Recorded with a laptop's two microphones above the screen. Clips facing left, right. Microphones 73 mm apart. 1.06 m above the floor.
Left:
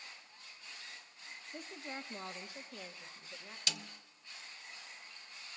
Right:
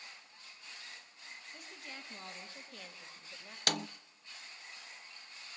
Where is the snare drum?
60° right (ahead or behind), 0.5 m.